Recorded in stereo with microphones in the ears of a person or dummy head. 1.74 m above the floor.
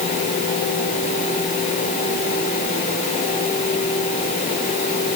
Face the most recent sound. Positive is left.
No sound to turn to.